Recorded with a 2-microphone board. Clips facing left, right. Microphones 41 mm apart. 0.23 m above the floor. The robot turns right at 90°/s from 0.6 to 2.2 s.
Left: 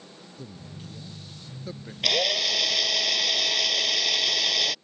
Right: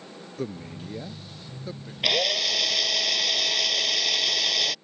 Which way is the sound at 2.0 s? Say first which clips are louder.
Even; 15° right (ahead or behind).